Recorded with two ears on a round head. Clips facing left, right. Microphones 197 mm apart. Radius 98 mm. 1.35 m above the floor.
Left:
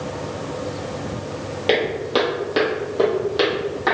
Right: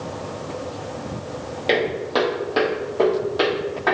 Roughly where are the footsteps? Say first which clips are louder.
Left 1 dB; centre.